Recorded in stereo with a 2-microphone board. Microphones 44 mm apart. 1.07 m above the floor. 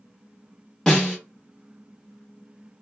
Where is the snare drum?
15° left (ahead or behind), 1.5 m.